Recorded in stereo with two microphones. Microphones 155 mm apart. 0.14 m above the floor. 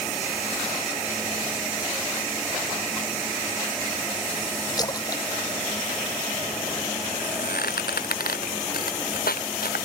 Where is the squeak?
75° left (ahead or behind).